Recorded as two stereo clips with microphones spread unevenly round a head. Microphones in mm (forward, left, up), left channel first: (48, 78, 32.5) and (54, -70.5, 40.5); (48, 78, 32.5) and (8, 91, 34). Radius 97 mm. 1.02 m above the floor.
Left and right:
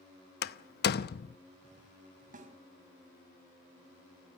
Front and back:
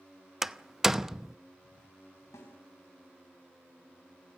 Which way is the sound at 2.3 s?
55° right.